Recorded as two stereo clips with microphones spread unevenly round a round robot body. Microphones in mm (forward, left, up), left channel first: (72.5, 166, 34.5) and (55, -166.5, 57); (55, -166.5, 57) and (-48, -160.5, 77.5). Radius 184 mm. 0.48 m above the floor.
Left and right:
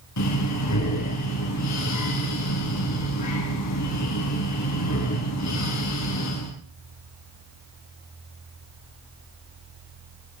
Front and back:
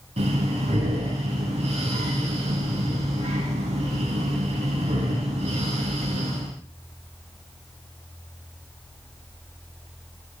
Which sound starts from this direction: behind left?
Breathing, at 0.2 s.